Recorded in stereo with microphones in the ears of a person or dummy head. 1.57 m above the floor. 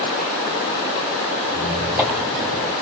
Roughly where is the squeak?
Centre.